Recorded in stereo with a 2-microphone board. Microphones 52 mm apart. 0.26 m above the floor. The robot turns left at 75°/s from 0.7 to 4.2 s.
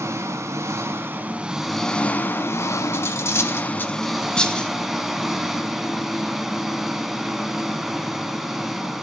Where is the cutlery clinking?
45° left (ahead or behind), 0.8 m; by 4.7 s 15° left (ahead or behind), 0.8 m.